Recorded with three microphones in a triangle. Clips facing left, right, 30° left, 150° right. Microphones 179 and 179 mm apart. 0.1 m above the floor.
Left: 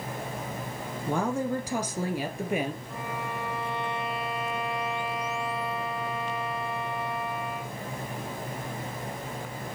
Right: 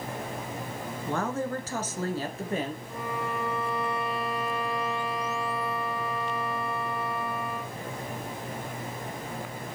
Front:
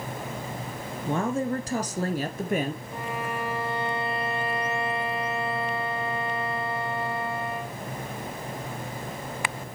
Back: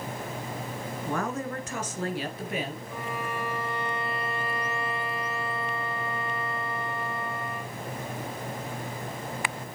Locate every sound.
1.1 s a woman speaking: 40° left, 1.1 m; by 2.8 s 15° left, 1.6 m
2.9 s a violin: 5° right, 4 m